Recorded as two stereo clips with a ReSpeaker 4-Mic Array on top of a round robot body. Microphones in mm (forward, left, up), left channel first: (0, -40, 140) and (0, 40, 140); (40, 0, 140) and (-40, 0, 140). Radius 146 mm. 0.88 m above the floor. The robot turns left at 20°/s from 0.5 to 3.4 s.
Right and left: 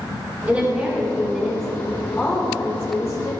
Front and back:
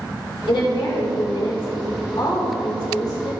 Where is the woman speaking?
15° left, 4 m; by 3.3 s 40° right, 4 m.